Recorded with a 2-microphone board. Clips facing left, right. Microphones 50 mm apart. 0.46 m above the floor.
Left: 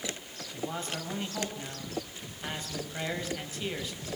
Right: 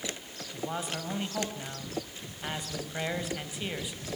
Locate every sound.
0.5 s a man speaking: 15° right (ahead or behind), 3.5 m